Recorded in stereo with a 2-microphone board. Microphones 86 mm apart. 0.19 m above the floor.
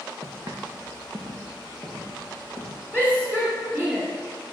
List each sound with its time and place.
0.2 s footsteps: 50° right (ahead or behind), 1.0 m; by 2.8 s 35° right (ahead or behind), 2.5 m
2.9 s a shout: 25° right (ahead or behind), 1.5 m